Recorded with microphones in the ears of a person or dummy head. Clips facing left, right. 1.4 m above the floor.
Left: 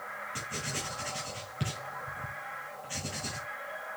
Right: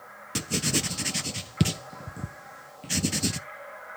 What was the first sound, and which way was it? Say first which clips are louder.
Writing: right 12 dB; 75° right (ahead or behind).